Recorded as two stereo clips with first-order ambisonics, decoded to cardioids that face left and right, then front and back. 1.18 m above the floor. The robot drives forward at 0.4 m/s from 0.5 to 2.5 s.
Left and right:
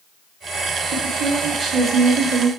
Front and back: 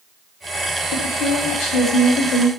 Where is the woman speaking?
25° right, 2.5 m; by 2.5 s 30° right, 2 m.